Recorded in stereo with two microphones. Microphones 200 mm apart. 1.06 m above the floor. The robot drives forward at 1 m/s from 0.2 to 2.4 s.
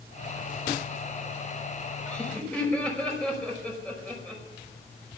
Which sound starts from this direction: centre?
Laughter, at 2.1 s.